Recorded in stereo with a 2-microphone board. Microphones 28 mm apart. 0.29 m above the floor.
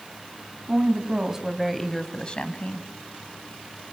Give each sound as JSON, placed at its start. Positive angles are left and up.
{"t": 0.7, "sound": "a woman speaking", "side_deg": -40, "distance_m": 2.5}